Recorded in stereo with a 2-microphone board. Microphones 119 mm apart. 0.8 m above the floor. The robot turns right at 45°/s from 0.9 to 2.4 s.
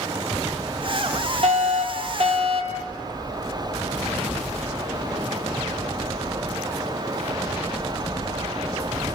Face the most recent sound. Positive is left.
turn(degrees=-60)